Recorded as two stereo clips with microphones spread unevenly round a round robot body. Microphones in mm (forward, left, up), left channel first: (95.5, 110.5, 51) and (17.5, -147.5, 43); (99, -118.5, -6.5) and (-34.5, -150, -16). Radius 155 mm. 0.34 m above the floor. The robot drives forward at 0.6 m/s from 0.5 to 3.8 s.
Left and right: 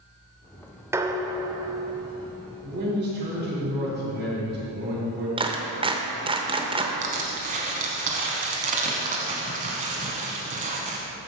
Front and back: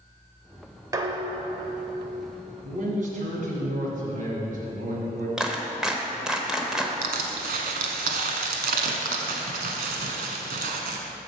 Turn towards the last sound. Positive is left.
turn(degrees=-170)